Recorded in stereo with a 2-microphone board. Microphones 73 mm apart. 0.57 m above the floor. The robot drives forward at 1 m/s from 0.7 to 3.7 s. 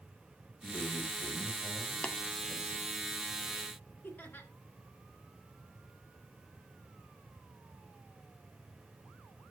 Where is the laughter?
25° left (ahead or behind), 1.6 m.